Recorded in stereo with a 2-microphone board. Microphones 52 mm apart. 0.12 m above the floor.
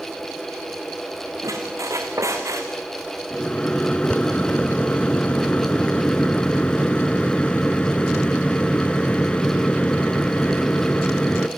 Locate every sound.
1.4 s a squeak: 80° right, 4 m
3.3 s a microwave: 20° left (ahead or behind), 1.0 m